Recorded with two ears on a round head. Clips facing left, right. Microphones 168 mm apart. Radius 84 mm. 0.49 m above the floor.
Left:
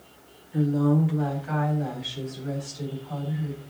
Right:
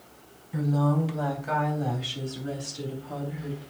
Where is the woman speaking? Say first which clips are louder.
Left 4 dB; 60° right (ahead or behind), 3.5 m; by 3.6 s 30° right (ahead or behind), 4 m.